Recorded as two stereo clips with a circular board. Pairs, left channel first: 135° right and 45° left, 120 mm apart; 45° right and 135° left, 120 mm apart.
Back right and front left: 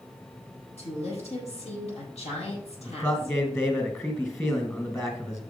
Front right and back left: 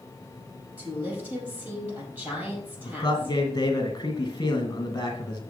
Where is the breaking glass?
I don't hear breaking glass.